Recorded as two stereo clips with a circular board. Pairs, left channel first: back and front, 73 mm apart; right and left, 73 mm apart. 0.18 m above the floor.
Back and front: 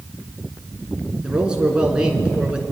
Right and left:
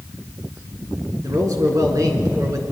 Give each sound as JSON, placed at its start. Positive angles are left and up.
{"t": 1.2, "sound": "a man speaking", "azimuth_deg": 75, "distance_m": 2.5}